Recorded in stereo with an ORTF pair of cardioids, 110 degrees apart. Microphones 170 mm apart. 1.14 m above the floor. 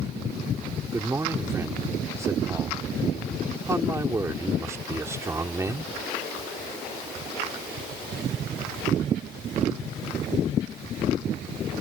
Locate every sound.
0.9 s a man speaking: 15° right